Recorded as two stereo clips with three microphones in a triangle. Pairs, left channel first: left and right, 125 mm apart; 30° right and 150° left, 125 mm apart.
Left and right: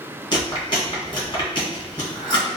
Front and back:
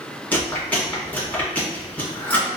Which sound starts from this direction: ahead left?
Chewing, at 0.3 s.